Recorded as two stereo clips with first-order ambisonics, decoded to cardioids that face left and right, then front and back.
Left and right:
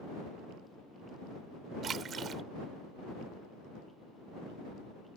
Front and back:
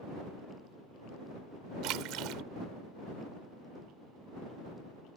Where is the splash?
150° right.